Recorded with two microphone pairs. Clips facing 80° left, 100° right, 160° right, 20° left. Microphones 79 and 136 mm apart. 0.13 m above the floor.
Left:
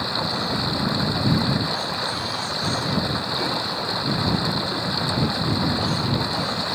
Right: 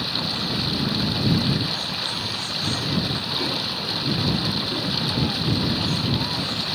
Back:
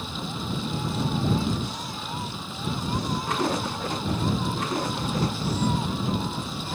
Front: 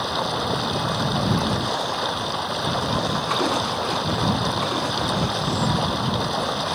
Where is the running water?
15° left.